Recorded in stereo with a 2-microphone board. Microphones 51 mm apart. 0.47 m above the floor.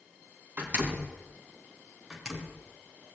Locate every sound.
0.6 s a door slam: 35° right (ahead or behind), 4 m
2.1 s a door slam: 10° right (ahead or behind), 4 m